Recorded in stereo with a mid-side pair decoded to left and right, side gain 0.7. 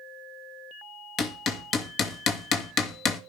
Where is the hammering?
45° left, 2 m.